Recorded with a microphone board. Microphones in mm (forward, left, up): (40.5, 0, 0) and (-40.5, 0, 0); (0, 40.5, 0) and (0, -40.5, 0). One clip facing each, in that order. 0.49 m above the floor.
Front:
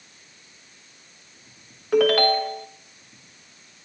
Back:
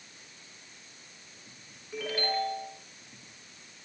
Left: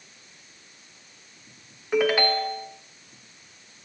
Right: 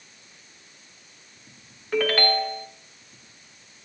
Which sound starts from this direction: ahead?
A ringtone, at 1.9 s.